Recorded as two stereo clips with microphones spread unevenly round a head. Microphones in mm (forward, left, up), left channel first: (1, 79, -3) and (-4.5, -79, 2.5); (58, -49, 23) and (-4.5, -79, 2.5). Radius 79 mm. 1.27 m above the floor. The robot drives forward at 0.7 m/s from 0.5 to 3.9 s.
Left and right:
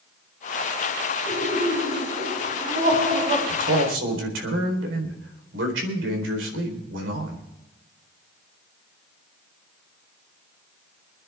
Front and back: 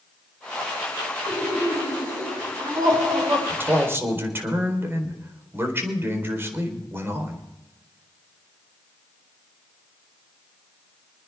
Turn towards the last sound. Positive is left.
turn(degrees=-95)